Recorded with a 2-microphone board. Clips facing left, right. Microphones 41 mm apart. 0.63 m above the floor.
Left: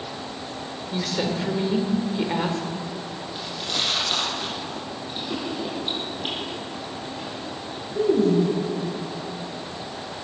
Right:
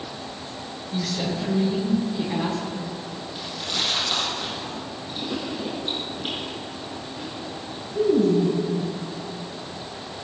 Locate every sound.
0.9 s a woman speaking: 50° left (ahead or behind), 2 m
3.4 s chewing: 20° left (ahead or behind), 5.5 m